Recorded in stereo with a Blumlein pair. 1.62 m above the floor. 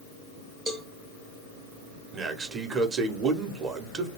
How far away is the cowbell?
About 0.5 m.